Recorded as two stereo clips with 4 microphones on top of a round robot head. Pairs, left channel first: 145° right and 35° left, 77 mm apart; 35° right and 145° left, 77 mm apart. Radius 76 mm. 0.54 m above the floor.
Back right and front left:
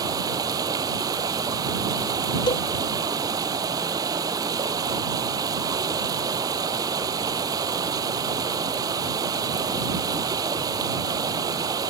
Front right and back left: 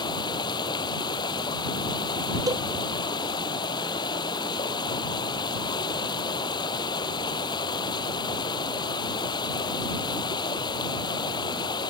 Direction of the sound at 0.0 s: 5° right.